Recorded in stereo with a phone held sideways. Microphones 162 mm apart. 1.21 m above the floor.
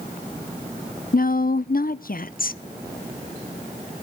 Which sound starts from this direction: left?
A woman speaking, at 1.1 s.